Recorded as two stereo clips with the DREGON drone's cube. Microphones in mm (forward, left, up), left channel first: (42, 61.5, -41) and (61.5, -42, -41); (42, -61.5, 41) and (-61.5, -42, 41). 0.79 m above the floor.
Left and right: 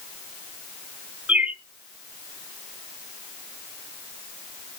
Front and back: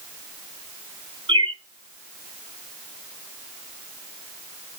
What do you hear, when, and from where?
1.3 s a bird: 155° right, 0.6 m